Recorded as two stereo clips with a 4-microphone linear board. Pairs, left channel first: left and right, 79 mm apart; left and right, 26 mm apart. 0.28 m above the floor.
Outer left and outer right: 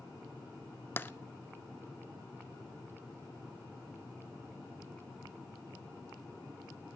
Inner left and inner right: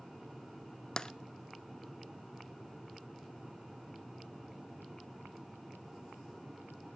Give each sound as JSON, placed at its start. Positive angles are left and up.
{"t": 1.0, "sound": "tapping", "side_deg": 25, "distance_m": 0.6}